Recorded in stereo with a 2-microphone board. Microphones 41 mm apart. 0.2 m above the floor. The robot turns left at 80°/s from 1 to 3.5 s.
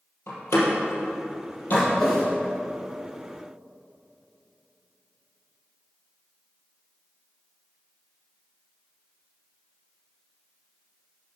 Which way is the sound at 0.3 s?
70° left (ahead or behind).